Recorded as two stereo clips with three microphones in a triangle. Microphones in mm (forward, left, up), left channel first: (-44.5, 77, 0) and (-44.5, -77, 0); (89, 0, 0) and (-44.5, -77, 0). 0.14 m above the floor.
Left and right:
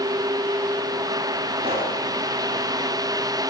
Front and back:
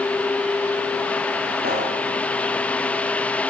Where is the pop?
145° right, 9 m.